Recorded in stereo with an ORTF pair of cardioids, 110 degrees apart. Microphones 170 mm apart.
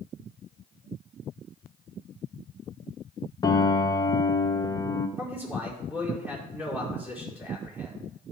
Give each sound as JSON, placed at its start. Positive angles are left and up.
{"t": 3.4, "sound": "a piano", "azimuth_deg": 25, "distance_m": 1.1}
{"t": 5.2, "sound": "a man speaking", "azimuth_deg": -10, "distance_m": 4.5}